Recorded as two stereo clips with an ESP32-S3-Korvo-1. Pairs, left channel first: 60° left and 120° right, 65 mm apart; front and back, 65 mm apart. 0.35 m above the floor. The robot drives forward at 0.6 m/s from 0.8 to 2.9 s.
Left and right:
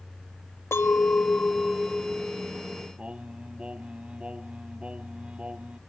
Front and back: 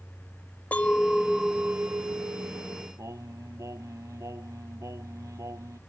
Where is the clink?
55° left; by 2.9 s 160° left.